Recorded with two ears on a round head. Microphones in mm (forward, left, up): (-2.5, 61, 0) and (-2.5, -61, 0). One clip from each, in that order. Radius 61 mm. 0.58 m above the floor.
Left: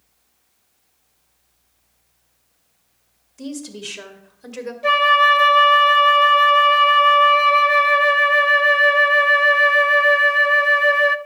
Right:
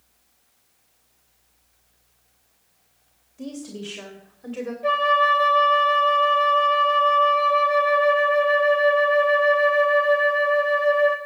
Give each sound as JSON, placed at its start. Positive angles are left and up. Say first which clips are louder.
{"t": 3.4, "sound": "a woman speaking", "louder": "left 3 dB", "side_deg": 60, "distance_m": 2.5}
{"t": 4.8, "sound": "a flute", "louder": "left 5 dB", "side_deg": 80, "distance_m": 0.8}